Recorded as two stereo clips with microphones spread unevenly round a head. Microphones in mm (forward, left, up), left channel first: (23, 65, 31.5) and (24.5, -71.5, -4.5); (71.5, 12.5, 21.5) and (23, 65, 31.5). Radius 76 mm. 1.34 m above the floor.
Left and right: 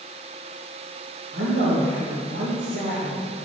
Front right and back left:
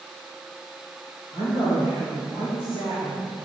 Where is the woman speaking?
110° right, 2 m.